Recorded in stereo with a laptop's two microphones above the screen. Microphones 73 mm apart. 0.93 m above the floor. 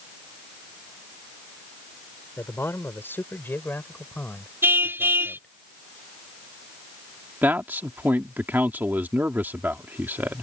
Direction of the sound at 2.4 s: 35° left (ahead or behind).